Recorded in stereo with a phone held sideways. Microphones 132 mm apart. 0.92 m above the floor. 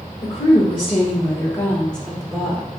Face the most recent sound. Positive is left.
turn(degrees=-10)  # may be behind; listen again after turning